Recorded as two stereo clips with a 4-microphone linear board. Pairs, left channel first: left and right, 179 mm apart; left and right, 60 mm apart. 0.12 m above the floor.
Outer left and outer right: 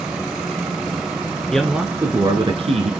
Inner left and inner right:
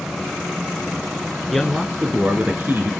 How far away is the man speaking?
About 1.3 m.